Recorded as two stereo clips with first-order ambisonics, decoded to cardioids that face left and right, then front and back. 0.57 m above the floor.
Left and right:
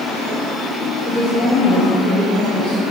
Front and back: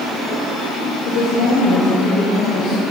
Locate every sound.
1.1 s a woman speaking: 25° left, 3 m; by 2.8 s 30° left, 4.5 m